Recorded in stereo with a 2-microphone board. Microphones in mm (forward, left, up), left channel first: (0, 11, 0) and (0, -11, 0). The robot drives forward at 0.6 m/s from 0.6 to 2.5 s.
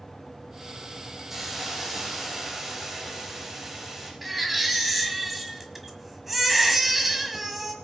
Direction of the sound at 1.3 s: 20° right (ahead or behind).